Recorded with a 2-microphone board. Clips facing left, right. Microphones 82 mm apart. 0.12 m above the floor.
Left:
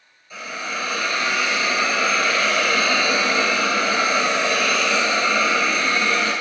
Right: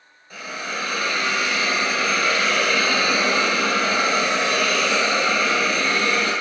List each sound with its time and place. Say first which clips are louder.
0.3 s a hiss: left 1 dB; 50° right (ahead or behind), 1.3 m